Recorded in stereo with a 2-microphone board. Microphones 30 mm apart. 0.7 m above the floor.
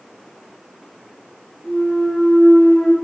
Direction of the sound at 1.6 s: 55° left (ahead or behind).